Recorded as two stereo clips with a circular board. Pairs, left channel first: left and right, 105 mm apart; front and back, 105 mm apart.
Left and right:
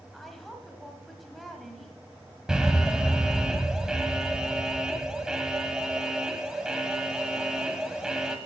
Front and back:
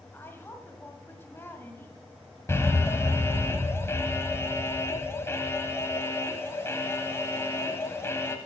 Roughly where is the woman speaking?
Ahead.